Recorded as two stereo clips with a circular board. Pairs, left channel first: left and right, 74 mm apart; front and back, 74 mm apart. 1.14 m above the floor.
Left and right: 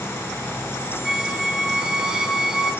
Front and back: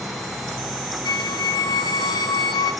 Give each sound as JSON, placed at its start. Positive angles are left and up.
{"t": 1.1, "sound": "a squeak", "azimuth_deg": -10, "distance_m": 0.8}